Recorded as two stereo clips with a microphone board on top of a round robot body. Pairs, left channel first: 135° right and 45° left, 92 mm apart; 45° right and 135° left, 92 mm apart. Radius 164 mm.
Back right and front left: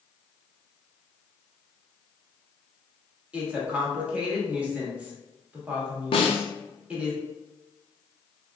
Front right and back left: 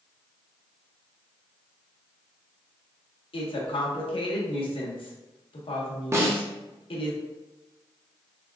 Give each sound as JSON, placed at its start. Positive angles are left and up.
{"t": 3.3, "sound": "a woman speaking", "azimuth_deg": -30, "distance_m": 1.7}
{"t": 6.1, "sound": "a snare drum", "azimuth_deg": -160, "distance_m": 0.7}